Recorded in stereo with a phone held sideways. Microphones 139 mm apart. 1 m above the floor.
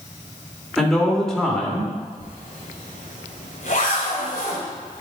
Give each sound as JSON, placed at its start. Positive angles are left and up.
{"t": 0.8, "sound": "a man speaking", "side_deg": 5, "distance_m": 2.5}
{"t": 2.2, "sound": "a zipper", "side_deg": 70, "distance_m": 1.7}